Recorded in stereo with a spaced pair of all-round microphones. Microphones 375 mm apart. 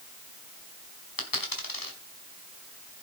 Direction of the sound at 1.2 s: 60° left (ahead or behind).